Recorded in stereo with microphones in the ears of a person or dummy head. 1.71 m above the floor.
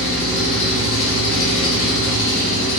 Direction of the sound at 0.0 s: 65° left (ahead or behind).